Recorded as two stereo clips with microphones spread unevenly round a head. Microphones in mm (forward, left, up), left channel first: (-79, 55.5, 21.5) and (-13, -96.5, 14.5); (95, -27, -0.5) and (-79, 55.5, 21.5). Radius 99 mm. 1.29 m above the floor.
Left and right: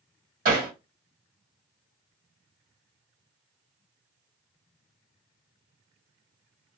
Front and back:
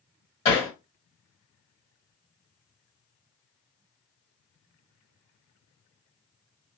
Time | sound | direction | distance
0.5 | hammering | 85° right | 1.8 m